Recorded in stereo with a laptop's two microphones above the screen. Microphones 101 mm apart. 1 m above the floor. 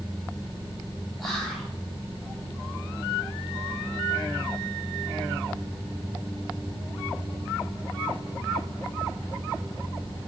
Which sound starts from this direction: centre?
Whispering, at 1.2 s.